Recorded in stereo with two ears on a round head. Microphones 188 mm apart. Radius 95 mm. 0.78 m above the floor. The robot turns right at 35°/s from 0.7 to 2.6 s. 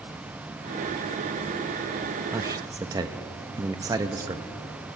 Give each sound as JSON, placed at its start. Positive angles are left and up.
{"t": 2.3, "sound": "a man speaking", "side_deg": -10, "distance_m": 0.6}